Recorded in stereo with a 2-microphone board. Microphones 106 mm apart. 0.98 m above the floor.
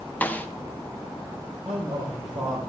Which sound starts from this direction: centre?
A snare drum, at 0.2 s.